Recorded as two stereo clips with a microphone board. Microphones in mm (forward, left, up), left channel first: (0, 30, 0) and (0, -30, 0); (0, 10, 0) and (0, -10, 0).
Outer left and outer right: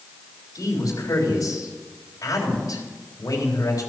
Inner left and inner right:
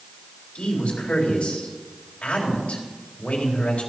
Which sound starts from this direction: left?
A man speaking, at 0.6 s.